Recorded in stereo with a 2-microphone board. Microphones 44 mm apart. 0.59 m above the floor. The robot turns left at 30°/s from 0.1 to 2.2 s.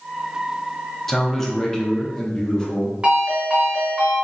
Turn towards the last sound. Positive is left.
turn(degrees=-25)  # may be behind; listen again after turning